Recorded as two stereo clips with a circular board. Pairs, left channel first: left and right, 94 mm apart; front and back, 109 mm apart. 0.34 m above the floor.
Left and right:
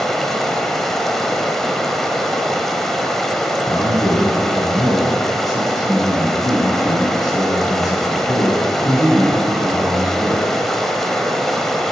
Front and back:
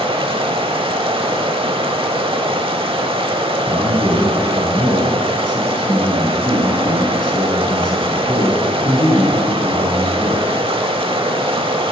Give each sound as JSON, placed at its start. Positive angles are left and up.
{"t": 0.0, "sound": "running water", "azimuth_deg": 175, "distance_m": 0.8}
{"t": 3.7, "sound": "a man speaking", "azimuth_deg": 40, "distance_m": 3.0}